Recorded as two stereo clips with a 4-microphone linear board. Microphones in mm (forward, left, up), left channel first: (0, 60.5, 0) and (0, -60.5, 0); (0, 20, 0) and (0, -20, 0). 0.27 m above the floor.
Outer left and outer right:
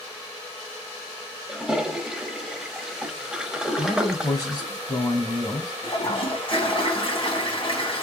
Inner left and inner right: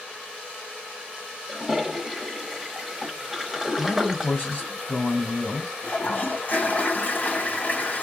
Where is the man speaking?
35° left (ahead or behind), 2.5 m.